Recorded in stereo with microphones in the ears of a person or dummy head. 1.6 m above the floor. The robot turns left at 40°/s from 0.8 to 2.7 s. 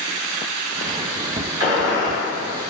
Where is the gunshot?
20° right (ahead or behind), 0.8 m; by 2.2 s 5° right (ahead or behind), 0.8 m.